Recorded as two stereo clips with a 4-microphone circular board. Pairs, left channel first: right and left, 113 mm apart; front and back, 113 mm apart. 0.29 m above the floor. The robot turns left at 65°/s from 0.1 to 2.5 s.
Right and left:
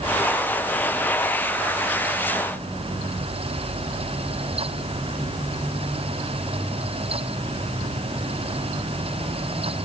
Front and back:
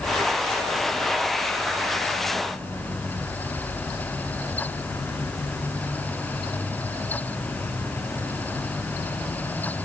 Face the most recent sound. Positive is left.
No sound to turn to.